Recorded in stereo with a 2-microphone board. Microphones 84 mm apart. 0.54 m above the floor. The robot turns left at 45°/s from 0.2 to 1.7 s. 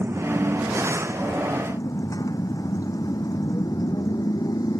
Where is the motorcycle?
25° right (ahead or behind); by 4.8 s 50° left (ahead or behind).